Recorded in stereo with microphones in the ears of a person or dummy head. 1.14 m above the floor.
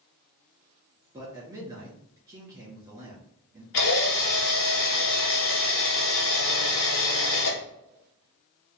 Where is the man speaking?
20° right (ahead or behind), 1.8 m.